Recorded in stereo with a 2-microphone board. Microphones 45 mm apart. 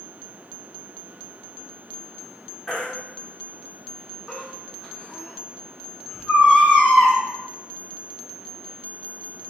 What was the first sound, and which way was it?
A baby crying, 10° left (ahead or behind).